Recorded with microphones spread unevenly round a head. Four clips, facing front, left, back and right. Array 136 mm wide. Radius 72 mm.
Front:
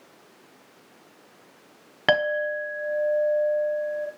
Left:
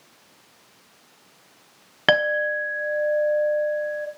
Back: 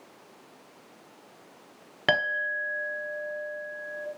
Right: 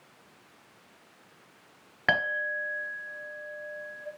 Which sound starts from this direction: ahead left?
A clink, at 2.1 s.